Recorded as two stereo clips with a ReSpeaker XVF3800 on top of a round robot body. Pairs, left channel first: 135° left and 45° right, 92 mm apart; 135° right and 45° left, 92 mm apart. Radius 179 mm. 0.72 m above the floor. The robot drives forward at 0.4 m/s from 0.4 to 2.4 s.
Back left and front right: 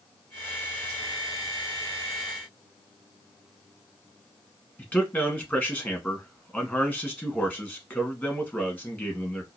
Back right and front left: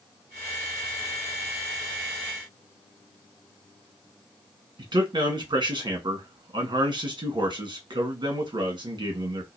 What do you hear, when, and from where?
4.8 s a man speaking: 65° left, 1.7 m